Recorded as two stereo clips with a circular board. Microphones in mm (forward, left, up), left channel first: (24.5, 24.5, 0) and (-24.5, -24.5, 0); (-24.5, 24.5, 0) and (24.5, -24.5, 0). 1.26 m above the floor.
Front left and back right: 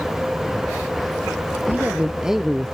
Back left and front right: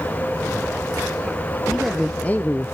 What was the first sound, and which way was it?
A man speaking, 120° right.